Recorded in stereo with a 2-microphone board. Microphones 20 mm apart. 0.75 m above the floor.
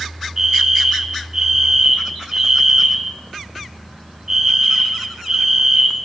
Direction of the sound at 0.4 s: 20° right (ahead or behind).